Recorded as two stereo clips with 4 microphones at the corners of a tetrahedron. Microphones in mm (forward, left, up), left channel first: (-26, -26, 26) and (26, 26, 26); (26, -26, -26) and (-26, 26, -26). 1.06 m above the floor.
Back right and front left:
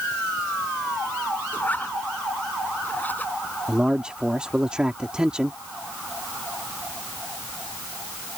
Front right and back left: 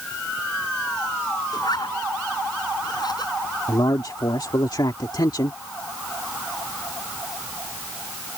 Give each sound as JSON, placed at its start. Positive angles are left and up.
{"t": 1.5, "sound": "a zipper", "azimuth_deg": -70}
{"t": 3.7, "sound": "a man speaking", "azimuth_deg": -35}